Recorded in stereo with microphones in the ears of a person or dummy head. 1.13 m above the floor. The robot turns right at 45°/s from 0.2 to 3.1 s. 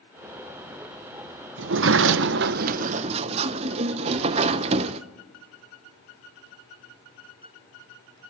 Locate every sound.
1.6 s a sliding door: 105° right, 0.6 m; by 5.0 s 40° right, 0.6 m